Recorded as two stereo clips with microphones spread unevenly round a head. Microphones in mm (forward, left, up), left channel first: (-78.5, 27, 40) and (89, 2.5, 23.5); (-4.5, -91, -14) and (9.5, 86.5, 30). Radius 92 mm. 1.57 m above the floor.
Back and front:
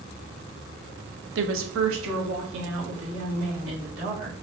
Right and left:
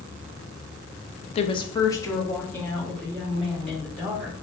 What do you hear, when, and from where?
1.4 s a woman speaking: 30° right, 0.5 m; by 4.4 s 5° right, 2.5 m